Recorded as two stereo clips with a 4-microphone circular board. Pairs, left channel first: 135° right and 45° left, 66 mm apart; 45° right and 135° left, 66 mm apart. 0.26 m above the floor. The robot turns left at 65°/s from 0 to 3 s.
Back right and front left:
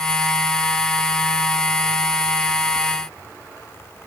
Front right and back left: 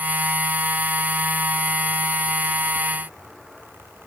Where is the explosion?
No explosion in this recording.